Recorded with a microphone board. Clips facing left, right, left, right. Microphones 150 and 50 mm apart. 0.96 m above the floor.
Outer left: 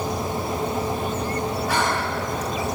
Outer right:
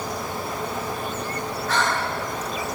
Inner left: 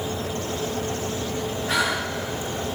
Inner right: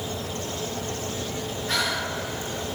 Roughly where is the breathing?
Centre.